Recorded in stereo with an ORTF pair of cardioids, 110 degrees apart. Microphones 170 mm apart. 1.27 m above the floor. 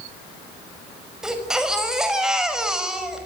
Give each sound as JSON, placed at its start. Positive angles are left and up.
{"t": 1.2, "sound": "a baby crying", "azimuth_deg": -5, "distance_m": 5.5}